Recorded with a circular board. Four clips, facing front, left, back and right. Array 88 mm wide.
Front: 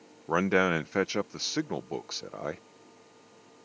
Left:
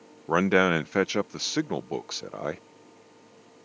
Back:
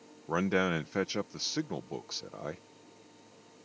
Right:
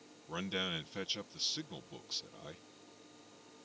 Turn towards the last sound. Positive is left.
turn(degrees=75)